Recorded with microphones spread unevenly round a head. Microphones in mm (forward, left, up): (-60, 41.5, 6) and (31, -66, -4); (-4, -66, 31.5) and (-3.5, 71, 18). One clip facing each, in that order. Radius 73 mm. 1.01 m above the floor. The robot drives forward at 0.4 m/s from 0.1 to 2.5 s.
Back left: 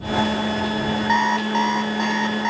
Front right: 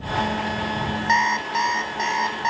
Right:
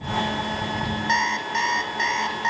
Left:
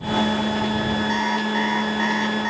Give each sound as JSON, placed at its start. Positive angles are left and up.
{"t": 1.1, "sound": "an alarm clock", "azimuth_deg": -115, "distance_m": 0.5}